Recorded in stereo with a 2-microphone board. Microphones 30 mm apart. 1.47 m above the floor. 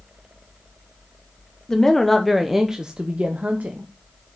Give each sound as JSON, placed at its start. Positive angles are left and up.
{"t": 1.7, "sound": "a woman speaking", "side_deg": 20, "distance_m": 1.0}